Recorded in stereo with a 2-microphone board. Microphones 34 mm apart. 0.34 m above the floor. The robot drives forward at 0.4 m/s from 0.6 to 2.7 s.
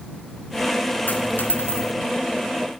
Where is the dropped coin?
65° left (ahead or behind), 1.8 m; by 1.9 s 75° left (ahead or behind), 1.7 m.